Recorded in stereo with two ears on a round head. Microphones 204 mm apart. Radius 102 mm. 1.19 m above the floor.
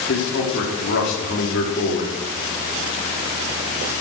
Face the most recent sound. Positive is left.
turn(degrees=55)  # may be behind; listen again after turning